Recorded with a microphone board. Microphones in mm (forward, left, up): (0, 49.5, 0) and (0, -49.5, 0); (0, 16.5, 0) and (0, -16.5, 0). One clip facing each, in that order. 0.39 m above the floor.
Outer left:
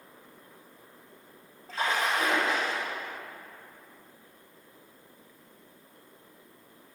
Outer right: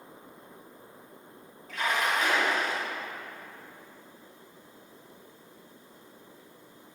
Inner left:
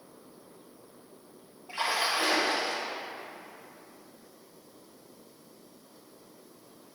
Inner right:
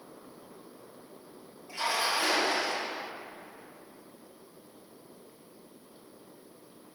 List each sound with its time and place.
1.7 s a splash: 35° left (ahead or behind), 2.5 m